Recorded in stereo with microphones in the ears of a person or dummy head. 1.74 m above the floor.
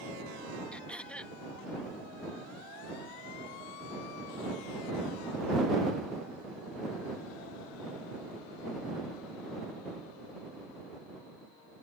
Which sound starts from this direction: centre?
Throat clearing, at 0.7 s.